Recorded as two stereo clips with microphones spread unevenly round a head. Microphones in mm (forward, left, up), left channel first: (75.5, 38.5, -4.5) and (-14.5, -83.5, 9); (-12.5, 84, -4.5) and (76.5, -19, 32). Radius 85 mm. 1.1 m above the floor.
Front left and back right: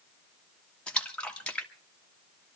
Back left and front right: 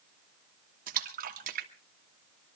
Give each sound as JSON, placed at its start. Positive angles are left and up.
{"t": 0.9, "sound": "a splash", "azimuth_deg": -30, "distance_m": 1.8}